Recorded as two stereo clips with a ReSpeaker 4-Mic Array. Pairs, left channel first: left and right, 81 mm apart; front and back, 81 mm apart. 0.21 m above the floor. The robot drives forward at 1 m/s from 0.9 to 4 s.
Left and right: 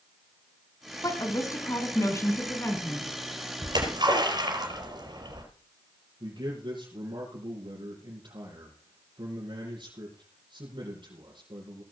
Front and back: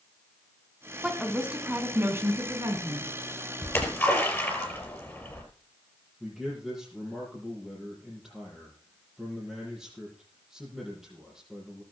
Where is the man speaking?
95° right, 6 m.